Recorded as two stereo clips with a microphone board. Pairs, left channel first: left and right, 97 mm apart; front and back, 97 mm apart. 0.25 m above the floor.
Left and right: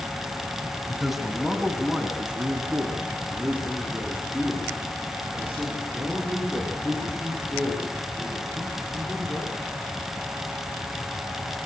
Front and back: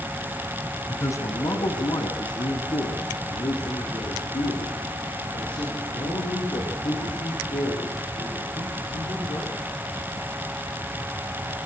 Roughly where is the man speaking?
Ahead.